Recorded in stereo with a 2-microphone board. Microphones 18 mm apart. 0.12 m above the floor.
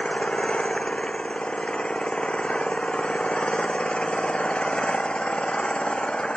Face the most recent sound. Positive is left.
turn(degrees=70)  # may be behind; listen again after turning